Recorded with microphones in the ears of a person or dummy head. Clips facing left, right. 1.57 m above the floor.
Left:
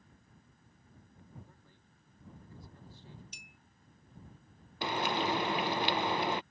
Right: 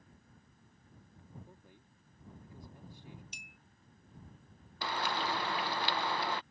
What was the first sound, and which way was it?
A man speaking, 15° right (ahead or behind).